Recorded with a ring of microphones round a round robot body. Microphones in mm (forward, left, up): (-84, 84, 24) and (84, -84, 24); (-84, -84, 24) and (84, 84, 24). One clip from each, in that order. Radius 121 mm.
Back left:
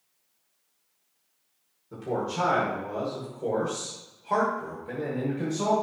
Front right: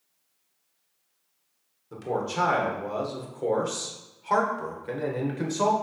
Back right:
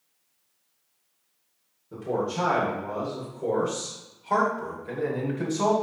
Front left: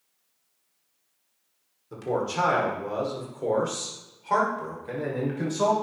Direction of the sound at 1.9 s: 10° left.